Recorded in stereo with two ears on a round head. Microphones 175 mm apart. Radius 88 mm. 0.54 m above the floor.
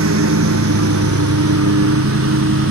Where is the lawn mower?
80° right; by 2.7 s 70° right (ahead or behind).